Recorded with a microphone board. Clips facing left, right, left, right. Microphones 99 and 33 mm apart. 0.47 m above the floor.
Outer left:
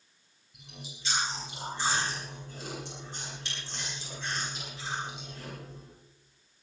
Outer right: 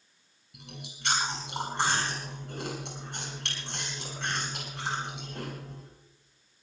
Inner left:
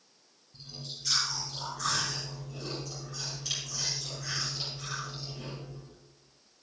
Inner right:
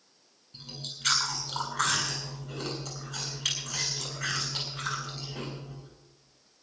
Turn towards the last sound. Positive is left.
turn(degrees=-75)  # may be behind; listen again after turning